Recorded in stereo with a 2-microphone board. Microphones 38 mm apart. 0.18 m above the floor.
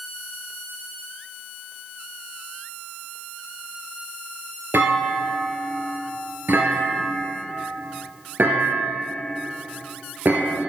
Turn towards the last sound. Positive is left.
turn(degrees=-65)  # may be behind; listen again after turning